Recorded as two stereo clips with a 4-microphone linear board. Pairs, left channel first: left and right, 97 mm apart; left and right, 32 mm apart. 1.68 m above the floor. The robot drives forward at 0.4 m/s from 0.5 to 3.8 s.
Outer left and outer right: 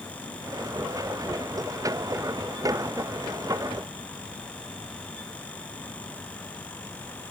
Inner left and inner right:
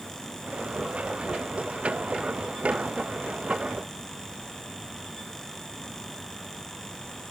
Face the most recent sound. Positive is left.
No sound to turn to.